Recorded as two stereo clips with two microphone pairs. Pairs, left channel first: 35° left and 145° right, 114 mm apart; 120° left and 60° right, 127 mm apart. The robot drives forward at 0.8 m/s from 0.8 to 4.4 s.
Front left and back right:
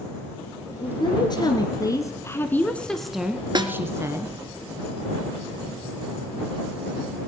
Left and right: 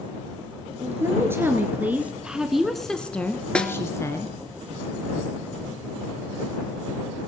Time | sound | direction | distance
0.8 | a woman speaking | 5° left | 2 m
3.5 | a snare drum | 160° right | 1.2 m